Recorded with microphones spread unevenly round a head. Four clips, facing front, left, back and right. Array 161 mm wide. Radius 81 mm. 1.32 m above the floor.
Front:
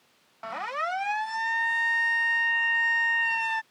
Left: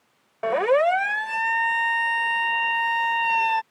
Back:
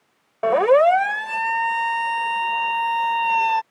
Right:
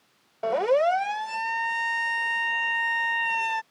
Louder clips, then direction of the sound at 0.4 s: Left 2 dB, back 18 dB; 175° left.